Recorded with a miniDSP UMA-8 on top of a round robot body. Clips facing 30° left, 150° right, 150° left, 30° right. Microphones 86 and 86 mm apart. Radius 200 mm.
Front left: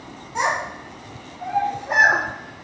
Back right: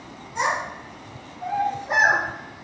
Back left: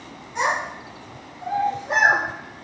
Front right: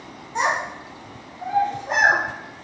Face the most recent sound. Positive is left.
turn(degrees=-10)